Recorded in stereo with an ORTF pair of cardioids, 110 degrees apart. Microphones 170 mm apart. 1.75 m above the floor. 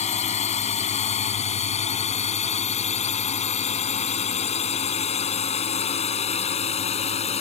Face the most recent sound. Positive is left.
turn(degrees=40)